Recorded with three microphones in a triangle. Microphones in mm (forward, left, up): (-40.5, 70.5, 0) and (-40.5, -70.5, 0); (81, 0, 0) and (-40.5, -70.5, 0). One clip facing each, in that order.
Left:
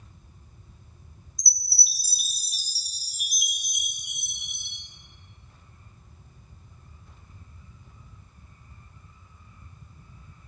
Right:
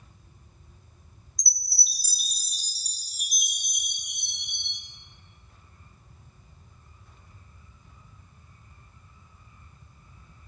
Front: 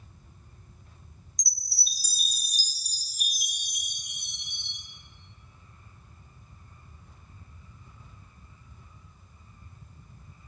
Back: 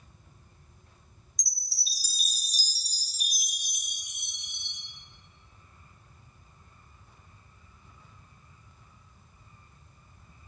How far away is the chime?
About 0.6 m.